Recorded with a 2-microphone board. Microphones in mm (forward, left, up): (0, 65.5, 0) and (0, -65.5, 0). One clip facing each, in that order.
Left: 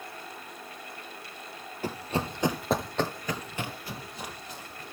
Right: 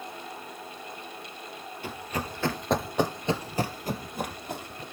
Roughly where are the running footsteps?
Left.